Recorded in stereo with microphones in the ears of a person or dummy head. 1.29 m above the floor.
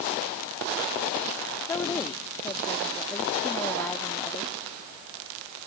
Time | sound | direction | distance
1.6 | a woman speaking | 10° left (ahead or behind) | ?